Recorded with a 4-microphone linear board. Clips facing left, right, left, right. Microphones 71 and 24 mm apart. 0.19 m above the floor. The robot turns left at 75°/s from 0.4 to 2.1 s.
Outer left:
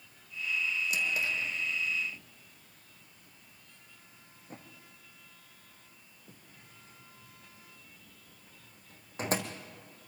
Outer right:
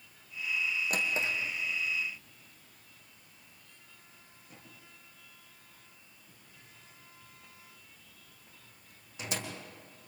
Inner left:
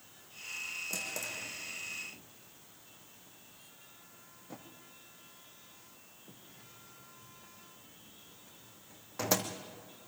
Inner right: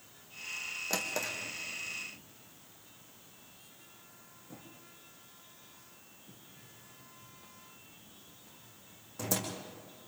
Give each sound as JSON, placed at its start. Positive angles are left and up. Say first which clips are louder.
{"t": 0.9, "sound": "a drawer", "louder": "even, inner right 4 dB", "side_deg": -50, "distance_m": 2.5}